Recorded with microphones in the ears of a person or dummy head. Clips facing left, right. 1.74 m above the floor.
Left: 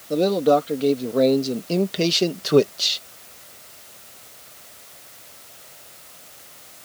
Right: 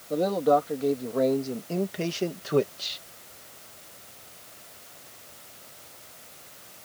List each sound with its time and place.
0.1 s a man speaking: 40° left (ahead or behind); by 3.0 s 65° left (ahead or behind)